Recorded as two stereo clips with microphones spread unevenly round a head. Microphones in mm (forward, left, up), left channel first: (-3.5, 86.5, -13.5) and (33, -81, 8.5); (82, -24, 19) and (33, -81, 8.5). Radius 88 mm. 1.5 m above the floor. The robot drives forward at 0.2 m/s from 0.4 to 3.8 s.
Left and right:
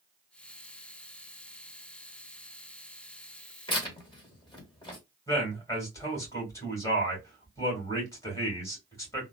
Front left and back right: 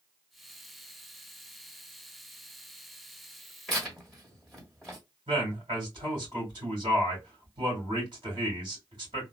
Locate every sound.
3.7 s tearing paper: 100° left, 1.2 m; by 5.0 s 105° left, 1.2 m
5.3 s a man speaking: 175° left, 2 m